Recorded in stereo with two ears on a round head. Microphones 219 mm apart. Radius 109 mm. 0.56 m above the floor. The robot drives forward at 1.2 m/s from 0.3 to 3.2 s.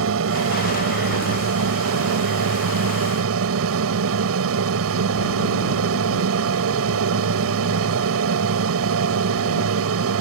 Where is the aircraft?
60° right (ahead or behind).